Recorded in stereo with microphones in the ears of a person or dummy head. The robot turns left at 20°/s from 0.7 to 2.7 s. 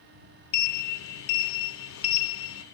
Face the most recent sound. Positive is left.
turn(degrees=75)